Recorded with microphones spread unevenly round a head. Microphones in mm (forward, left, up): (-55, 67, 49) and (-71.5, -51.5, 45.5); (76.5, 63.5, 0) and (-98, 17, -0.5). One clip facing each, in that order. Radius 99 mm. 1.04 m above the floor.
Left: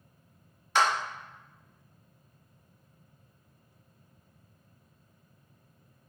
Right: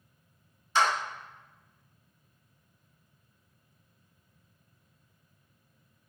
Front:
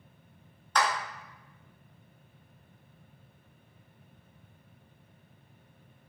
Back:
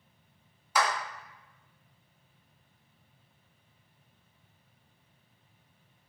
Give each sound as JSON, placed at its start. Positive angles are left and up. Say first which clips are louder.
{"t": 0.8, "sound": "a clap", "louder": "even, even", "azimuth_deg": 110, "distance_m": 0.9}